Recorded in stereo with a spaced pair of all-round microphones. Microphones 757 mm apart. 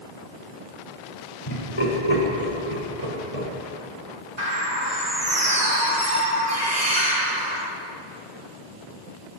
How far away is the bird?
About 3 m.